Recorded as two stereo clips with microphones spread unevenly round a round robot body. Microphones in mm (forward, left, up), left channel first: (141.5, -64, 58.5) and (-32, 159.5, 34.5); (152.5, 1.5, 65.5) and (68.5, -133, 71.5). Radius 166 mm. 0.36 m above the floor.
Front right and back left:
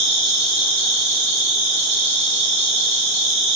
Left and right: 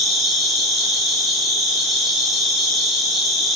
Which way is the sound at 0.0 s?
150° left.